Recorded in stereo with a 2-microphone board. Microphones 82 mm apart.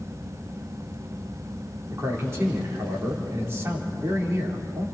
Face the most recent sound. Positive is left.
turn(degrees=-35)  # may be behind; listen again after turning